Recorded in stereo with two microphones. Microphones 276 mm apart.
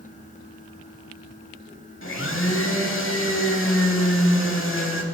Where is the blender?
50° left (ahead or behind), 0.8 m.